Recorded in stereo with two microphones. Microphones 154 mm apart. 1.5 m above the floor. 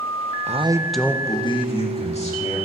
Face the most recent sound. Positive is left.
turn(degrees=45)  # may be behind; listen again after turning